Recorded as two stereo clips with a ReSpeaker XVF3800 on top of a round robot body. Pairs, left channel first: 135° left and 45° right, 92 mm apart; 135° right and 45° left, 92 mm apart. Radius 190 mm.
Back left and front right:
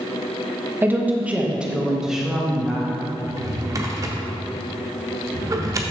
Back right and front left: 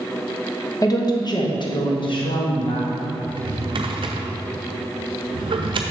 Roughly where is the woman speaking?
Right.